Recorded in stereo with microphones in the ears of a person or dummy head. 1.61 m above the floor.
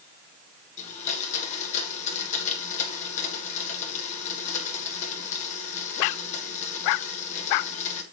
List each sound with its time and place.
0.8 s a blender: 40° left (ahead or behind), 3 m